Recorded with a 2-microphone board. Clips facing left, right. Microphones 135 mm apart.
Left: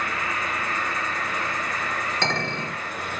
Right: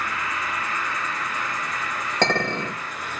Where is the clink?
70° right (ahead or behind), 2.0 m.